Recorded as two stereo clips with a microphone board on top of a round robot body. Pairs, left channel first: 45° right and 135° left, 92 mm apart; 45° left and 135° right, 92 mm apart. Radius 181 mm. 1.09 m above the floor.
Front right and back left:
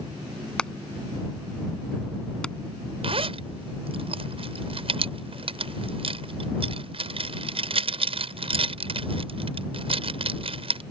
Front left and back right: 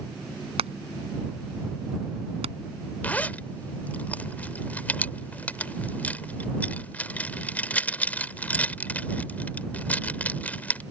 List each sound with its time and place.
0.6 s hammering: 125° right
3.0 s a zipper: 120° left